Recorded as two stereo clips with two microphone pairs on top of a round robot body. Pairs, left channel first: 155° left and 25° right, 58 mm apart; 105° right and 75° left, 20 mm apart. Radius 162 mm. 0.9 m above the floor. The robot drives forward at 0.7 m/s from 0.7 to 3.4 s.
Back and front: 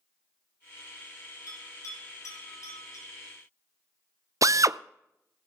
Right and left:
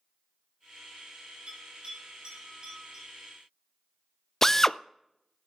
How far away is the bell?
About 3.5 m.